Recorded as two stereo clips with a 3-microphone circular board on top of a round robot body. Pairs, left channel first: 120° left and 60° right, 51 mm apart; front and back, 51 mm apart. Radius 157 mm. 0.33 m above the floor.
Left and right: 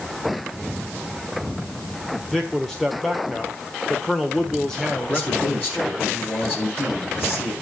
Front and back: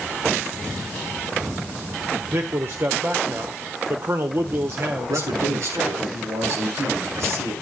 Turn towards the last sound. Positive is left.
turn(degrees=175)